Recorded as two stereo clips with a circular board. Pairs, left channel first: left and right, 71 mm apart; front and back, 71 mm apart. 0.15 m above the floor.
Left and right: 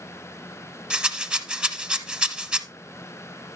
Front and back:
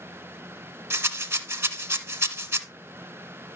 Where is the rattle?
155° right, 0.9 m.